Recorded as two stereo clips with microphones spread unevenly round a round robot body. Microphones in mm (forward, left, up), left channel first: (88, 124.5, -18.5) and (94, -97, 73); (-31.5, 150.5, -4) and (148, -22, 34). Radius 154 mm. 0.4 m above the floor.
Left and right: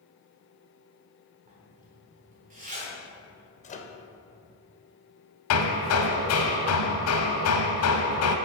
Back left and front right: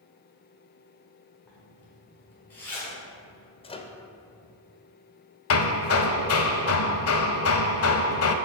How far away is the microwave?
About 0.8 m.